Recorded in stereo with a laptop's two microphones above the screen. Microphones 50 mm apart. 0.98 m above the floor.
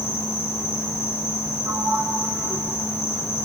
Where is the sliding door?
80° right, 3.5 m.